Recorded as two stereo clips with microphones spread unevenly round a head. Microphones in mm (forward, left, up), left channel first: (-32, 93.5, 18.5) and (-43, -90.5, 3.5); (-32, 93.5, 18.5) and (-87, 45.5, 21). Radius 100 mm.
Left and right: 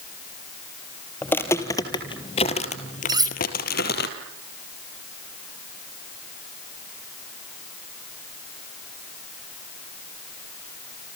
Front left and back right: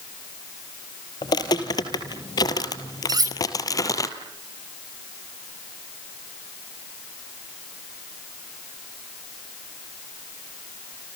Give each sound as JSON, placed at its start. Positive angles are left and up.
{"t": 1.2, "sound": "footsteps", "azimuth_deg": 10, "distance_m": 1.8}
{"t": 3.1, "sound": "cutlery clinking", "azimuth_deg": -160, "distance_m": 4.0}